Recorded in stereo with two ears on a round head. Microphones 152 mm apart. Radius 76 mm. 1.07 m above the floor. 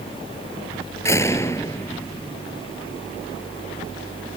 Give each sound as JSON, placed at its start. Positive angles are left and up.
{"t": 1.1, "sound": "a door slam", "side_deg": 15}